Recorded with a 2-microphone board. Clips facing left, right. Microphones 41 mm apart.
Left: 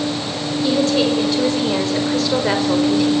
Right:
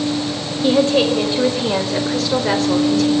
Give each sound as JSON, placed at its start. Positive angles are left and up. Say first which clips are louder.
{"t": 0.6, "sound": "a woman speaking", "louder": "right 3 dB", "side_deg": -30, "distance_m": 5.5}